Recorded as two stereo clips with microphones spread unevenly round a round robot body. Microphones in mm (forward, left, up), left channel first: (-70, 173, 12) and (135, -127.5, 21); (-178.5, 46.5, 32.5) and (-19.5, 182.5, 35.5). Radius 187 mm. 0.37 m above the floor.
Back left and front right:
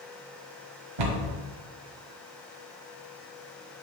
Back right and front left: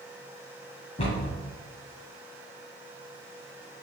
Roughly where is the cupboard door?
Right.